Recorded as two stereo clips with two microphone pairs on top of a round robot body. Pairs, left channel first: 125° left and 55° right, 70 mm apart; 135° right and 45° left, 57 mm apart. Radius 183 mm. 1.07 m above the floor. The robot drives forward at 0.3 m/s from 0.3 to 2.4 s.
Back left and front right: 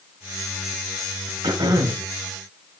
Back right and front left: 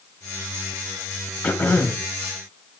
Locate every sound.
1.4 s throat clearing: 70° right, 2.0 m; by 2.1 s 75° right, 1.9 m